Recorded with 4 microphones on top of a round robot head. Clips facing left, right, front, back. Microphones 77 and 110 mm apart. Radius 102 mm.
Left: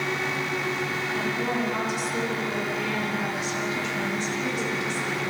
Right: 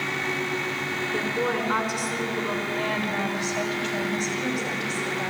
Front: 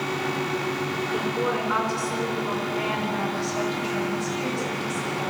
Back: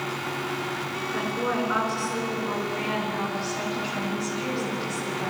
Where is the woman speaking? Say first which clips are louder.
Right 2 dB, even; 65° right, 5.5 m; by 5.3 s 50° right, 10 m.